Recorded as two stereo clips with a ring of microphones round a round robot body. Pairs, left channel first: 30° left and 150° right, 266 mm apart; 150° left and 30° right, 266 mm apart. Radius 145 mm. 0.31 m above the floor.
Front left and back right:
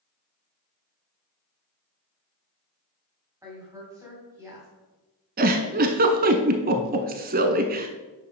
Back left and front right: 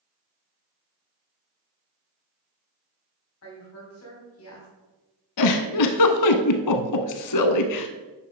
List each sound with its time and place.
3.4 s a woman speaking: 135° left, 2.5 m
5.4 s a giggle: 155° left, 0.8 m